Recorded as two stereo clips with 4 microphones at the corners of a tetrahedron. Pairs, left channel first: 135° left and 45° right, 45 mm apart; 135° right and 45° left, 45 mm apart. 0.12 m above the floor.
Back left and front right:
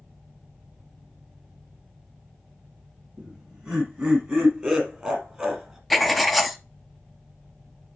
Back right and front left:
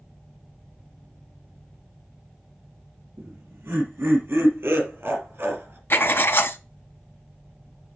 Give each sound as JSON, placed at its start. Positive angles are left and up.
{"t": 3.2, "sound": "laughter", "azimuth_deg": 15, "distance_m": 5.5}
{"t": 5.9, "sound": "writing", "azimuth_deg": -135, "distance_m": 0.7}